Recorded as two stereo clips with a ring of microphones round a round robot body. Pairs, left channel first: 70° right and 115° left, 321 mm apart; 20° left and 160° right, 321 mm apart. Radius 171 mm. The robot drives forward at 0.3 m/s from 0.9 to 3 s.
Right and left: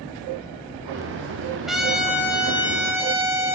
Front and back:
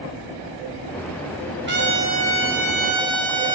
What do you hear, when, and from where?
1.7 s a trumpet: 160° right, 1.1 m; by 3.6 s 165° right, 1.3 m